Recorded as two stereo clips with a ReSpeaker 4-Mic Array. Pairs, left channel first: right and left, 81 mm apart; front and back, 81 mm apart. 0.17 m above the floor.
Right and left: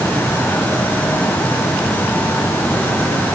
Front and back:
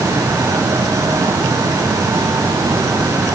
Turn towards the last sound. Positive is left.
No sound to turn to.